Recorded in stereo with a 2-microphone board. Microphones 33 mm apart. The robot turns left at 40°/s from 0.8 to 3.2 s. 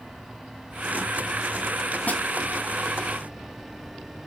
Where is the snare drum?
55° left (ahead or behind), 2 m; by 2.2 s 50° left (ahead or behind), 2 m.